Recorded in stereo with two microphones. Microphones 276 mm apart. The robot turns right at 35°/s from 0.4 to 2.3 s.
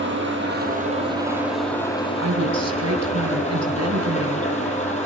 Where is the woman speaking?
70° right (ahead or behind), 3 m.